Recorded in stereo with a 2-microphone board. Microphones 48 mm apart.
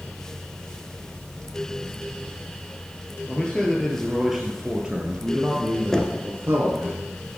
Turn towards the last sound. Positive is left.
turn(degrees=10)  # may be behind; listen again after turning